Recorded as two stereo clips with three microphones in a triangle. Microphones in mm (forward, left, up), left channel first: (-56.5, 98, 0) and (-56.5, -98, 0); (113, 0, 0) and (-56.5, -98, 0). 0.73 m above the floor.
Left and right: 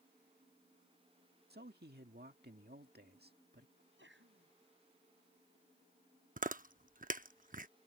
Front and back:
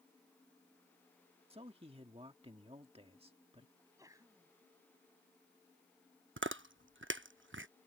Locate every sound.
1.5 s a man speaking: 95° right
3.8 s a sneeze: 75° right
6.4 s chewing: 140° right